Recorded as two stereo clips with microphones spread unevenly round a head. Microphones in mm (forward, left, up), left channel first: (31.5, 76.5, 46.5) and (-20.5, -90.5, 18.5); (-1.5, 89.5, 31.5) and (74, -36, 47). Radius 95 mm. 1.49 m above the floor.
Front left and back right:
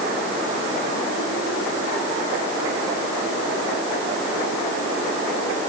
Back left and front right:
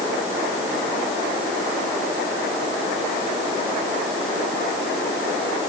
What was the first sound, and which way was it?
Only background noise.